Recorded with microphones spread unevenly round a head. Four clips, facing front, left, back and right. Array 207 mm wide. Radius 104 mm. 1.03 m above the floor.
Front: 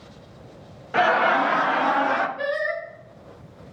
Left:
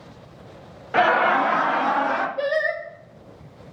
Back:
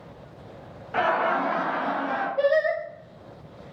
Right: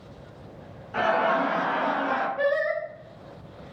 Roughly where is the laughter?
Ahead left.